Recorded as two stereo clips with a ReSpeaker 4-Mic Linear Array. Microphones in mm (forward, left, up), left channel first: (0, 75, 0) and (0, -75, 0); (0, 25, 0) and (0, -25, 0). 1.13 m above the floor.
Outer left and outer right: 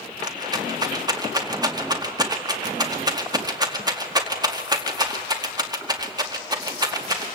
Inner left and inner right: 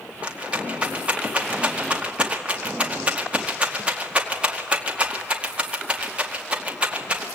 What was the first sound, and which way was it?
A rattle, 25° right (ahead or behind).